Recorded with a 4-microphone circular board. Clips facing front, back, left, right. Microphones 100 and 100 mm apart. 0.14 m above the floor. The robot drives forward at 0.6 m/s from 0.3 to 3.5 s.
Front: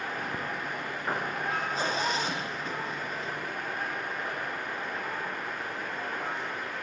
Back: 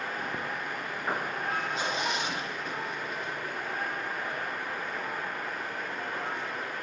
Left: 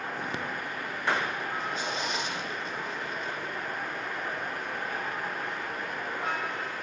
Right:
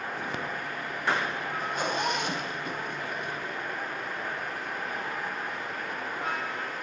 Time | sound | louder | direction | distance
1.6 | a zipper | front 1 dB, right 3 dB | 50° right | 6.5 m